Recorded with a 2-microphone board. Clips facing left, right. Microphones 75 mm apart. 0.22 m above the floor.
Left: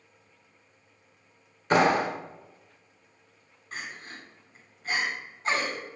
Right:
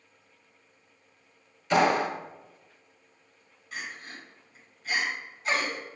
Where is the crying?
40° left (ahead or behind), 2 m.